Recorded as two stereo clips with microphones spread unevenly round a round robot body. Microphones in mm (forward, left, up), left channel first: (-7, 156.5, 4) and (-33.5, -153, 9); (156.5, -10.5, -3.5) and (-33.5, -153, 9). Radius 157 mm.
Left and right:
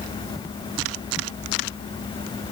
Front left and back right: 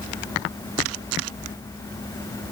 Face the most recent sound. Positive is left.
No sound to turn to.